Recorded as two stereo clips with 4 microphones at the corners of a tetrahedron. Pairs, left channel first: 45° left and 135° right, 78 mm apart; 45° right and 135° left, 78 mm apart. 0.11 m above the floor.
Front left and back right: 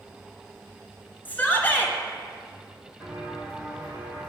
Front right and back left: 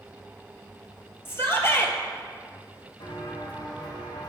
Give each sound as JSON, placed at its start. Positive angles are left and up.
{"t": 1.2, "sound": "a shout", "azimuth_deg": -5, "distance_m": 1.5}
{"t": 3.0, "sound": "footsteps", "azimuth_deg": -50, "distance_m": 3.5}